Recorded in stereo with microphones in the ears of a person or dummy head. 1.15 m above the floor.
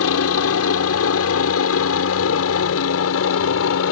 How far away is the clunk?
I don't hear a clunk.